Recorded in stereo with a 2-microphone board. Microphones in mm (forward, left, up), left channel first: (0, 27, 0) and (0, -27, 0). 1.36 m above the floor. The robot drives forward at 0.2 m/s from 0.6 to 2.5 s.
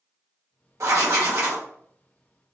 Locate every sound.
0.8 s writing: 65° right (ahead or behind), 1.0 m; by 1.6 s 70° right (ahead or behind), 1.0 m